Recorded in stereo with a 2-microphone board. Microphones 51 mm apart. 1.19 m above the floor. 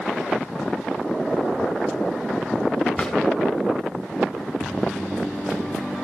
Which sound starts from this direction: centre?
A drawer, at 3.0 s.